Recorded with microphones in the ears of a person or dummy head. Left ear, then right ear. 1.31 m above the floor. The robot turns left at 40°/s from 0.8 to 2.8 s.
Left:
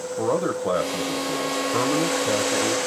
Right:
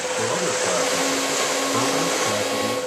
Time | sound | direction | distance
0.2 | a man speaking | 130° left | 1.0 m